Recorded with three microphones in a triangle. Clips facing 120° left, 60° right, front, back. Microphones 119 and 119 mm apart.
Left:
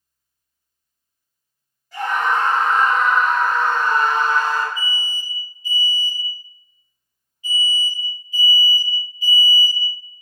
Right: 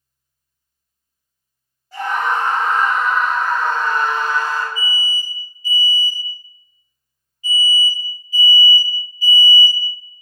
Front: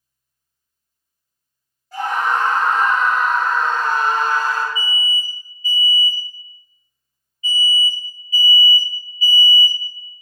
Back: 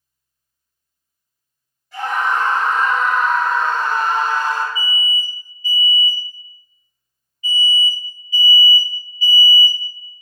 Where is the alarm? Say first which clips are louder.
Right 3 dB, back 1 dB; 20° left, 1.9 m.